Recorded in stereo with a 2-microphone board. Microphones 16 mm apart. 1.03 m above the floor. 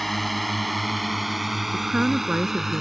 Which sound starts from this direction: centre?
A drone, at 0.0 s.